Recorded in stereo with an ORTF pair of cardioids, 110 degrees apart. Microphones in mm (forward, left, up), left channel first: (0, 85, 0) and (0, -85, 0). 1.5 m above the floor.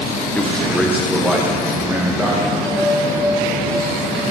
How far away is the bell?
About 3.5 m.